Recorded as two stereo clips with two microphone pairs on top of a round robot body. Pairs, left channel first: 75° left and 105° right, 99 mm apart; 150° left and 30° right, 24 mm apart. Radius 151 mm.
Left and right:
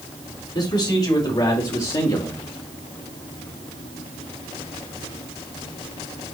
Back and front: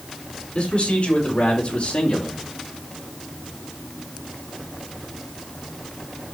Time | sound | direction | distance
0.6 | a man speaking | 115° left | 3 m